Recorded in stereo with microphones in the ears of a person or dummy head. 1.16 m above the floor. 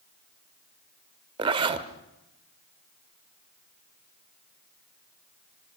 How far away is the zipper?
About 1.7 m.